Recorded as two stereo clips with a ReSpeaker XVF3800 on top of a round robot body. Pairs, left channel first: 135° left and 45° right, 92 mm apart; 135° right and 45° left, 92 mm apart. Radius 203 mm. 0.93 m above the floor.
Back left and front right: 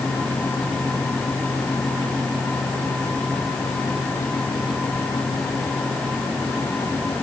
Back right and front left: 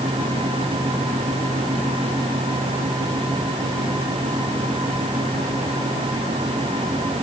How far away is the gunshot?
I don't hear a gunshot.